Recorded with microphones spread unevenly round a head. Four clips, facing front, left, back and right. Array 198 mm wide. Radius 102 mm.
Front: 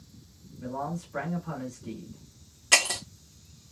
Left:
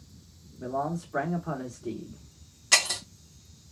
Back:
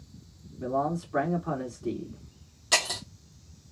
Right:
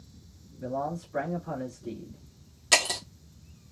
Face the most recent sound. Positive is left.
turn(degrees=-80)